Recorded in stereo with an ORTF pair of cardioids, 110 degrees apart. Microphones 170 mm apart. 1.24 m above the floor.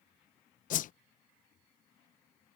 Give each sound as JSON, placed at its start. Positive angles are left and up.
{"t": 0.7, "sound": "a whoosh", "azimuth_deg": 55}